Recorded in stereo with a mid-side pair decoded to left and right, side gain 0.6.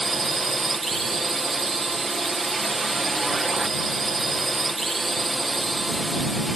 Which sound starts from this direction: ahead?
A drone, at 0.0 s.